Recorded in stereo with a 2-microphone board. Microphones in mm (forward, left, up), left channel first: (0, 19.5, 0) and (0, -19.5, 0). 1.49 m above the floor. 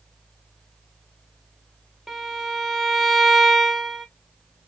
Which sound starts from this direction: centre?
A violin, at 2.1 s.